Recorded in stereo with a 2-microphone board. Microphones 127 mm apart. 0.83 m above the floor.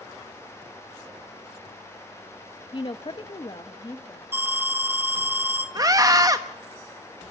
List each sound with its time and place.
2.7 s a woman speaking: 40° left (ahead or behind), 0.7 m; by 4.2 s 30° left (ahead or behind), 1.6 m
4.3 s an alarm: 20° right (ahead or behind), 2.5 m
5.8 s a scream: 30° right (ahead or behind), 0.8 m